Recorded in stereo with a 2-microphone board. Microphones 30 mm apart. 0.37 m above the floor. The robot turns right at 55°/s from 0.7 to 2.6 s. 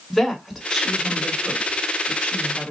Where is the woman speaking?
Centre (ahead or behind), 1.6 m; by 2.7 s 40° left (ahead or behind), 1.6 m.